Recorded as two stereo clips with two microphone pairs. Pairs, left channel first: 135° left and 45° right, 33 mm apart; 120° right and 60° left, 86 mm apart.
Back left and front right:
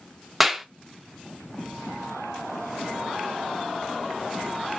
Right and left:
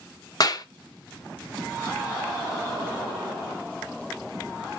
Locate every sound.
0.4 s a clap: 135° right, 0.6 m